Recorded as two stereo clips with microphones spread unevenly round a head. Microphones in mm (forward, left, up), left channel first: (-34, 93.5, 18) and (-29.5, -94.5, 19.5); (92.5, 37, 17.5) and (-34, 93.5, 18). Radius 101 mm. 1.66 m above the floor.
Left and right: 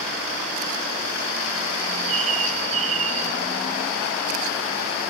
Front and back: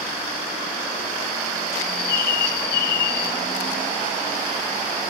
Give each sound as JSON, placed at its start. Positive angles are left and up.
{"t": 1.8, "sound": "a bird", "azimuth_deg": -30, "distance_m": 0.6}